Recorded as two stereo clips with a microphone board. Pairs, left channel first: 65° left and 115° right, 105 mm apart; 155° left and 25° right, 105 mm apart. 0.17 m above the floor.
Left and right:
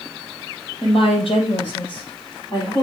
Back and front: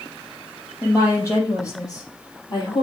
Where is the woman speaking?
95° left, 5 m; by 2.8 s 115° left, 4 m.